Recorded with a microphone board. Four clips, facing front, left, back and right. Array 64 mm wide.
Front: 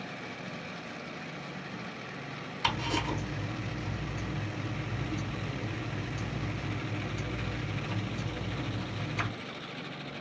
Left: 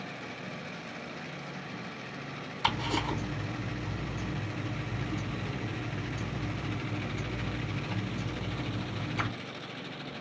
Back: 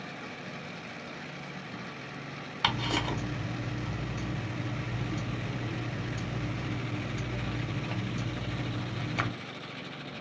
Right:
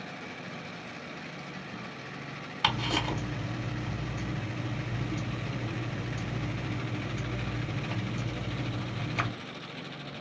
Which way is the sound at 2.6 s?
135° right.